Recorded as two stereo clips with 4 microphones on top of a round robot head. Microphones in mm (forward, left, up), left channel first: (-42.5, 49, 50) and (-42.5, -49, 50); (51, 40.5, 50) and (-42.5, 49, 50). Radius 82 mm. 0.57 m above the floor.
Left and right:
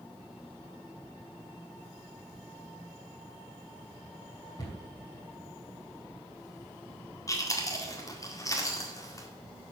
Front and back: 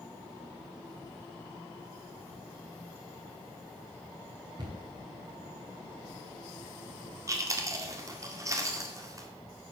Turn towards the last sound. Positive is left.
turn(degrees=135)